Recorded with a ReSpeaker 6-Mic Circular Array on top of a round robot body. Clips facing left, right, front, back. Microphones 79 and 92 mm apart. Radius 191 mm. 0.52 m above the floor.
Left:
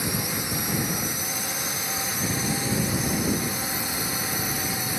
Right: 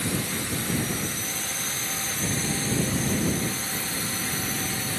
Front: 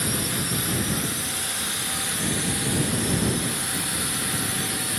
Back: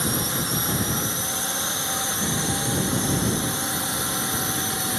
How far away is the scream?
No scream in this recording.